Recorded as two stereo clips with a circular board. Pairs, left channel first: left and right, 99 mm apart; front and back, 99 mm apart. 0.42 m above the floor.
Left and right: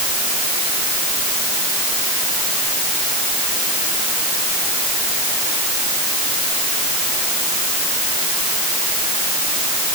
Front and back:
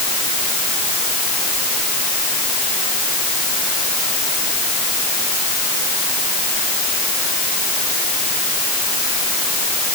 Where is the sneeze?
I don't hear a sneeze.